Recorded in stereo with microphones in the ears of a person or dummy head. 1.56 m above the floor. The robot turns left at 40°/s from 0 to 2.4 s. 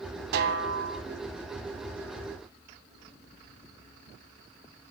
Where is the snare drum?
60° right (ahead or behind), 0.9 m; by 1.0 s 80° right, 0.9 m.